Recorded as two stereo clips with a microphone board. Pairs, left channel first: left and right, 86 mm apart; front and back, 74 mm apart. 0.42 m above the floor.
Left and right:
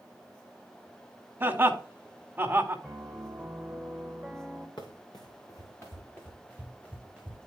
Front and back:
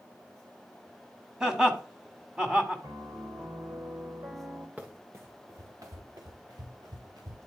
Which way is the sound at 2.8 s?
170° left.